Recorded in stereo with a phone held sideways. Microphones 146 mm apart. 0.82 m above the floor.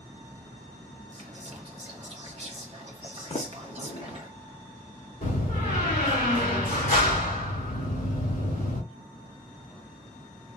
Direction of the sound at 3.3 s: 50° left (ahead or behind).